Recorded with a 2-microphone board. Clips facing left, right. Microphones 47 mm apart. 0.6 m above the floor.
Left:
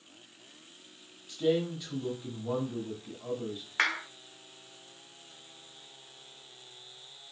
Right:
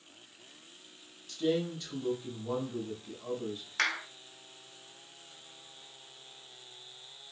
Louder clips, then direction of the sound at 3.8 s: Left 2 dB; 25° left (ahead or behind).